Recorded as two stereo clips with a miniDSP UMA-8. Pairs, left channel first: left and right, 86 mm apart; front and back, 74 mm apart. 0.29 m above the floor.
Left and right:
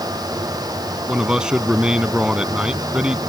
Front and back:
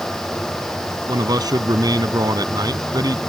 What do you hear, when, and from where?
1.1 s a man speaking: 170° right